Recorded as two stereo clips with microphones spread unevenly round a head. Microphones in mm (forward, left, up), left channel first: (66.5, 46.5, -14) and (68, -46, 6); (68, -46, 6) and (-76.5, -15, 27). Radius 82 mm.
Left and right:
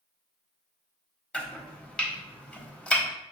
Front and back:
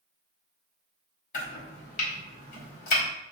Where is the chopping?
5° left, 1.2 m.